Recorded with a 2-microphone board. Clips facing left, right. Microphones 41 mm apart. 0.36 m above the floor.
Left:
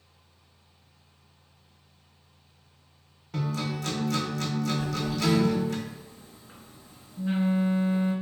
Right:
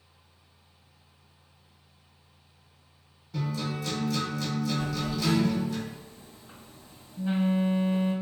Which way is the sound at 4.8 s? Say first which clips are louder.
Left 1 dB; 60° right (ahead or behind).